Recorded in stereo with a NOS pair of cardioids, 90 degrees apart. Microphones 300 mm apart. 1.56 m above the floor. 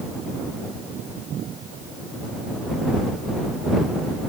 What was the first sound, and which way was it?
Only background noise.